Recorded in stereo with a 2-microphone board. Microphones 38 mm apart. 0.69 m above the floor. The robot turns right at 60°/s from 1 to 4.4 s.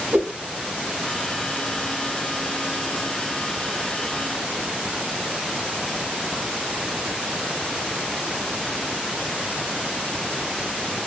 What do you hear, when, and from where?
0.1 s a whoosh: 60° right (ahead or behind), 0.6 m